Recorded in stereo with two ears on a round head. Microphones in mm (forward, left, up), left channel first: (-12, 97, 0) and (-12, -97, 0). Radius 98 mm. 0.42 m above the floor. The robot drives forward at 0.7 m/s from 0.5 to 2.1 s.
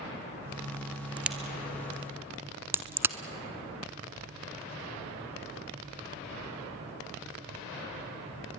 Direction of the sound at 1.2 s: 5° right (ahead or behind).